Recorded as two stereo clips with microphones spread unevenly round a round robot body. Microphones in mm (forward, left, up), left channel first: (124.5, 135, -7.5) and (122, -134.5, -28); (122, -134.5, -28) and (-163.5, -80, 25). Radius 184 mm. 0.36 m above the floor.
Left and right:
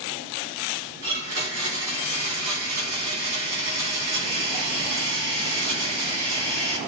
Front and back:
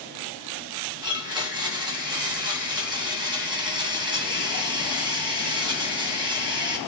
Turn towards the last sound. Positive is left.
turn(degrees=-110)